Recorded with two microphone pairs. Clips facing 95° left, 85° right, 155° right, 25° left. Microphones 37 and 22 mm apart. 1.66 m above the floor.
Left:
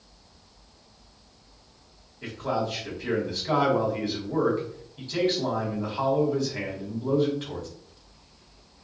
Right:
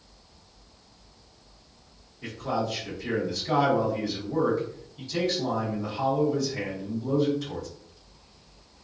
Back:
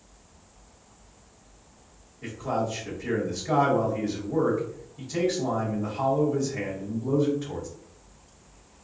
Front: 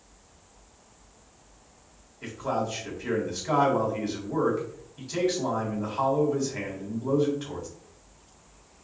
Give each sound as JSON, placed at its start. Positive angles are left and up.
{"t": 2.2, "sound": "a man speaking", "azimuth_deg": 40, "distance_m": 1.3}